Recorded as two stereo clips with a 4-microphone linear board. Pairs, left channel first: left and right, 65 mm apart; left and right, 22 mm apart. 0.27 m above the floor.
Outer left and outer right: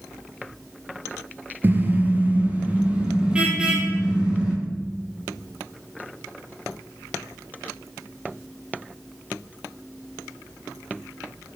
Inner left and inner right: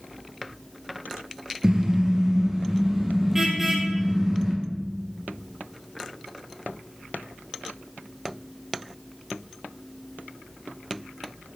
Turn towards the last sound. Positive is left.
turn(degrees=-15)  # may be behind; listen again after turning